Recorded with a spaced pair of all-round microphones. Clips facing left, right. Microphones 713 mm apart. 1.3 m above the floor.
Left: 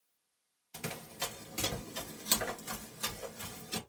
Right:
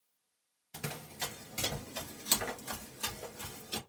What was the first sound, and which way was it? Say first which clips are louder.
Running footsteps: left 1 dB; 30° right (ahead or behind).